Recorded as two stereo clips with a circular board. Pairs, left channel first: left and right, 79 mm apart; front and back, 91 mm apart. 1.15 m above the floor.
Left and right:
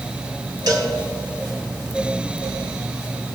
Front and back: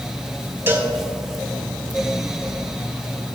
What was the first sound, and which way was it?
A cowbell, 120° right.